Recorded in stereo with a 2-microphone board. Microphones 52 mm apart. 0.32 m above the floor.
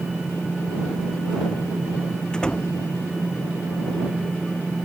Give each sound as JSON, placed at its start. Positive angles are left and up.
{"t": 2.3, "sound": "a door slam", "side_deg": 15}